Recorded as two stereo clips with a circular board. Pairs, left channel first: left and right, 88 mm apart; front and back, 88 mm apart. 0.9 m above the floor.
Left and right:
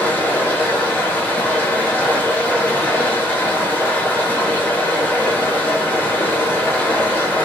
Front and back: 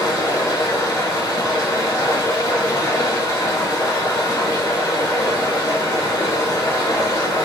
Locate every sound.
0.0 s running water: 25° left, 0.7 m